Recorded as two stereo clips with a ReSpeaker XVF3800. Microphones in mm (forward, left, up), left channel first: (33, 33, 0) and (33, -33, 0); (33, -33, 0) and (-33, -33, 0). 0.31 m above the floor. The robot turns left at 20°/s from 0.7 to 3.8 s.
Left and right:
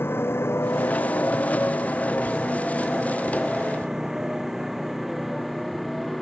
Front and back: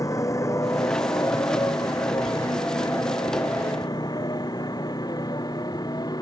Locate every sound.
0.0 s a motorcycle: 35° left; by 6.2 s straight ahead